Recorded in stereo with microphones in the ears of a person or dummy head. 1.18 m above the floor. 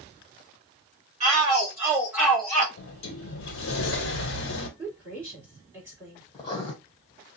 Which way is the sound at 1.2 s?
30° right (ahead or behind).